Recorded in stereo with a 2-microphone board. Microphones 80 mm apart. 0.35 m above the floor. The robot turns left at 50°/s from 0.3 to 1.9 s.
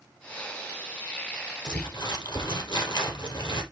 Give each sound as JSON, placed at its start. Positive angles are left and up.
{"t": 1.6, "sound": "crumpling", "side_deg": 75, "distance_m": 4.0}